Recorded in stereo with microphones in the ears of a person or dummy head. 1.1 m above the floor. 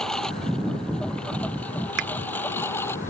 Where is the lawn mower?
Centre (ahead or behind); by 3.1 s 10° left (ahead or behind).